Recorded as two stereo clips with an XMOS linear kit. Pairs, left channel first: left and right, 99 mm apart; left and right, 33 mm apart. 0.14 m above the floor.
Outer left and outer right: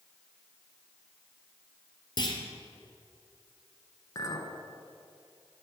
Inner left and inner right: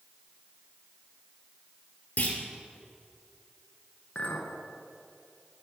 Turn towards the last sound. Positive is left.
turn(degrees=40)  # may be behind; listen again after turning